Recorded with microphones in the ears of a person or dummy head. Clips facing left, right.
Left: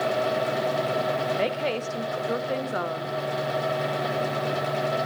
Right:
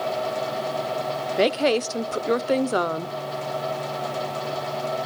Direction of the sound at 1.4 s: 65° right (ahead or behind).